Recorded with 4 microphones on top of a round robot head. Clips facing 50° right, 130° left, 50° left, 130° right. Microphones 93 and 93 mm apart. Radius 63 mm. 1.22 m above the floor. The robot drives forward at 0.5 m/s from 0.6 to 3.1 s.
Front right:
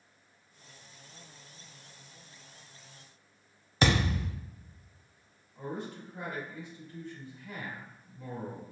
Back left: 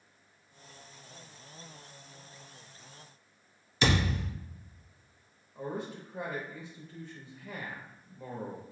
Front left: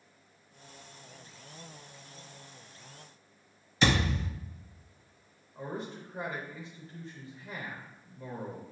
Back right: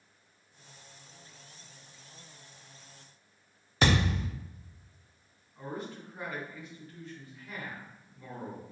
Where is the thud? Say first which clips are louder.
Front right 1 dB, even; 90° right, 0.8 m.